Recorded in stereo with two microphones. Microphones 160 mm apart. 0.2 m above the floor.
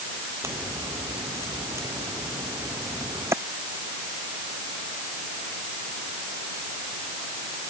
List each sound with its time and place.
0.4 s a crack: 15° right (ahead or behind)